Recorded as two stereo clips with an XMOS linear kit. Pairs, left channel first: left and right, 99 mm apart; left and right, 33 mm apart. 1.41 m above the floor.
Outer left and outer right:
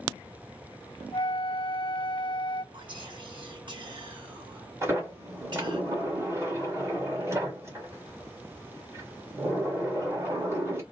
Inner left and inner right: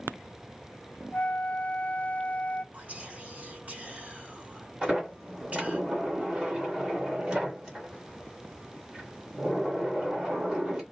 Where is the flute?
50° left (ahead or behind), 0.6 m.